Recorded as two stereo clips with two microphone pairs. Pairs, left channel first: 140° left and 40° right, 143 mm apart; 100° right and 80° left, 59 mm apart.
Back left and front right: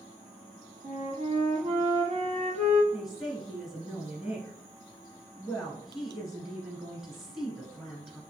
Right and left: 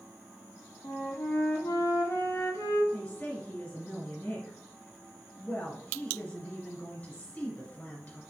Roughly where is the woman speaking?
Behind right.